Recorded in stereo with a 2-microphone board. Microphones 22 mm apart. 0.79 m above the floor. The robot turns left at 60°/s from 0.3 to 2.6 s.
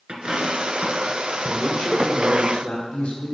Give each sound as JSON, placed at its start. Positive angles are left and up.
{"t": 0.1, "sound": "a dropped coin", "side_deg": -50, "distance_m": 1.7}
{"t": 1.5, "sound": "a man speaking", "azimuth_deg": 180, "distance_m": 2.0}